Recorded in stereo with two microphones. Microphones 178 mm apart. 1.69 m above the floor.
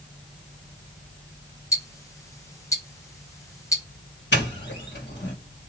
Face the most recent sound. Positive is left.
turn(degrees=80)